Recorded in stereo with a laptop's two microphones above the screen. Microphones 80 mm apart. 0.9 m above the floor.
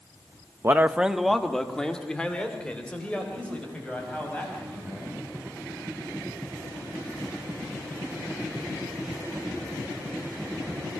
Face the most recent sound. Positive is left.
turn(degrees=15)  # may be behind; listen again after turning